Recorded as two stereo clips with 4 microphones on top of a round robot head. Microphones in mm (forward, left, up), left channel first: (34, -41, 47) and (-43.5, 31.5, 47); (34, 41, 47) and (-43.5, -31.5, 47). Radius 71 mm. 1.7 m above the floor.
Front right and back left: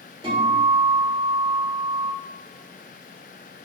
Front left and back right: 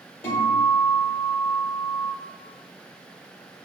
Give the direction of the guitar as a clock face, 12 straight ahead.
9 o'clock.